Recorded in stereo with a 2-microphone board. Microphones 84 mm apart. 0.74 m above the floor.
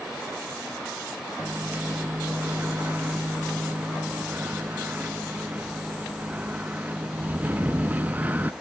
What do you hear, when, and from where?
1.4 s a microwave: 20° right (ahead or behind), 0.8 m